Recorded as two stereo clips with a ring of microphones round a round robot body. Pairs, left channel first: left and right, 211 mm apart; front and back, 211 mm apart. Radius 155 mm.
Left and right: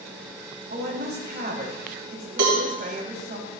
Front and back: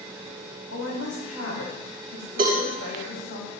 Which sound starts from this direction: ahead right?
A woman speaking, at 0.7 s.